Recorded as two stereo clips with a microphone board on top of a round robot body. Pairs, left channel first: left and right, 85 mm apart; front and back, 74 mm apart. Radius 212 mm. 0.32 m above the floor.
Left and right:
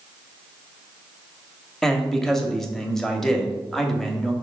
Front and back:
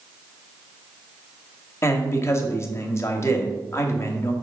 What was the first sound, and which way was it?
A man speaking, 5° left.